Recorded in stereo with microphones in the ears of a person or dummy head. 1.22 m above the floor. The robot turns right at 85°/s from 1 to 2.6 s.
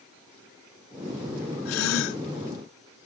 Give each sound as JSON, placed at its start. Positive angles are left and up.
{"t": 1.6, "sound": "a gasp", "azimuth_deg": 80}